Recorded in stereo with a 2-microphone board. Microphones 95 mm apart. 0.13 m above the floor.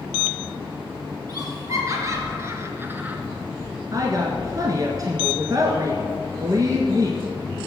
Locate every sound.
1.3 s laughter: 40° right (ahead or behind), 3.5 m; by 3.2 s 15° right (ahead or behind), 1.8 m
3.9 s a woman speaking: 40° right (ahead or behind), 1.4 m